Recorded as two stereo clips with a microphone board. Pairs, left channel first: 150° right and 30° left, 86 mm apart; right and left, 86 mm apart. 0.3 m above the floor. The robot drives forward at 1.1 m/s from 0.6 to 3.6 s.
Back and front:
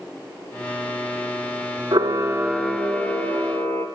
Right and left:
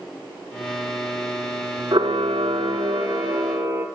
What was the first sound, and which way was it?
A camera shutter, 60° left.